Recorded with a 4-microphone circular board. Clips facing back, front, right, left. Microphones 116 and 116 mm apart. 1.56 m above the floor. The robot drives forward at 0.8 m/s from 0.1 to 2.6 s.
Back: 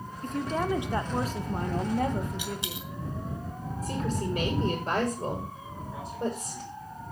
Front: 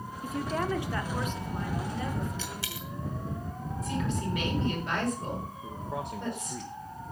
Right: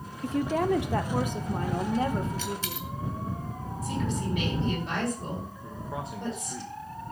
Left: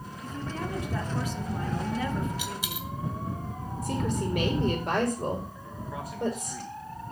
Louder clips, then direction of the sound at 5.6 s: Front 3 dB, right 1 dB; 25° right.